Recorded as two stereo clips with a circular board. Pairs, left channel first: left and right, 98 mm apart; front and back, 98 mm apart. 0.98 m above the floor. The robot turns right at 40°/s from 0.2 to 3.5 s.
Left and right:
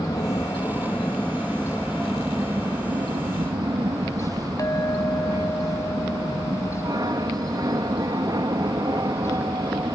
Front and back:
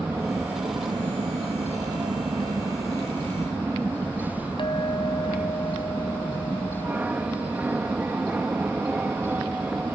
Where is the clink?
35° left.